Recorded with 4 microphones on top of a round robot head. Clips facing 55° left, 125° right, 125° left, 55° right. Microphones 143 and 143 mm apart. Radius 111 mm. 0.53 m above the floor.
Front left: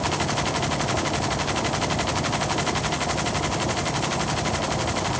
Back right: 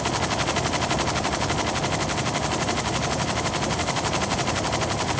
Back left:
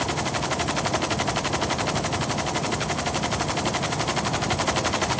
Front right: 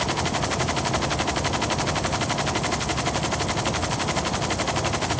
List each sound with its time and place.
Only background noise.